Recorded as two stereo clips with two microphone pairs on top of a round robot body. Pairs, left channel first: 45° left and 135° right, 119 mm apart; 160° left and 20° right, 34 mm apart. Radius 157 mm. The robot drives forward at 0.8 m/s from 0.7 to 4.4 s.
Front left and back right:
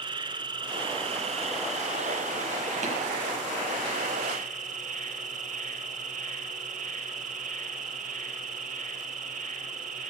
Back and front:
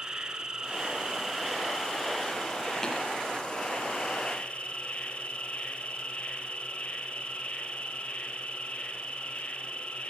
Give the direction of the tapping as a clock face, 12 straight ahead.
4 o'clock.